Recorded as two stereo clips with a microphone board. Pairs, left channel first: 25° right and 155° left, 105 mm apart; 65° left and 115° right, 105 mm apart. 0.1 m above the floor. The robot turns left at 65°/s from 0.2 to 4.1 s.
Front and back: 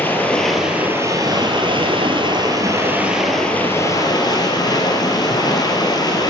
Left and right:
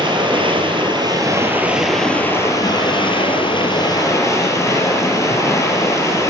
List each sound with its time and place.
0.0 s running water: 90° right, 2 m; by 6.3 s 15° left, 2 m